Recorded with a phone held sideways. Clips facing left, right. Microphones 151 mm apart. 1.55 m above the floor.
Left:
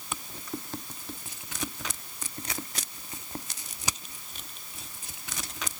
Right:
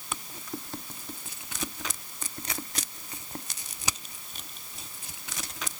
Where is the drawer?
No drawer in this recording.